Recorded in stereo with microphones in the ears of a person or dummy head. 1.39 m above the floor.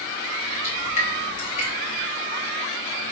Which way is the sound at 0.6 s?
40° left (ahead or behind).